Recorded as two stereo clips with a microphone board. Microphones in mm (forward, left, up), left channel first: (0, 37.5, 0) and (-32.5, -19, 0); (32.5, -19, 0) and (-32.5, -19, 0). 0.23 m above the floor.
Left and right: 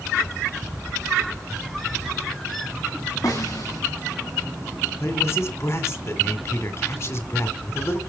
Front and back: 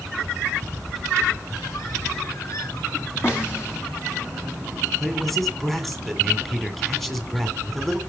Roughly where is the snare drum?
Ahead left.